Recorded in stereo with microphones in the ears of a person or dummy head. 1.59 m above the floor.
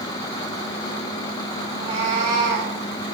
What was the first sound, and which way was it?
A cat meowing, 25° right (ahead or behind).